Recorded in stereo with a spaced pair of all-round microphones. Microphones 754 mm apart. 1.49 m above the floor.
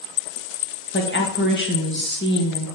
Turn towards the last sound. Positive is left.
turn(degrees=15)  # may be behind; listen again after turning